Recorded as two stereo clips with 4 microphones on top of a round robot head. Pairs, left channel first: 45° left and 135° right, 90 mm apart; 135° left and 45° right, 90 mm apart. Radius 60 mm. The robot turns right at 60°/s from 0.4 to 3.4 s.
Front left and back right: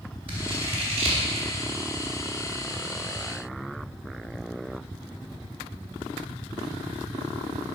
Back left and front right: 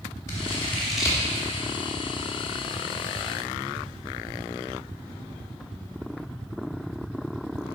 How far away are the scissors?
About 3 m.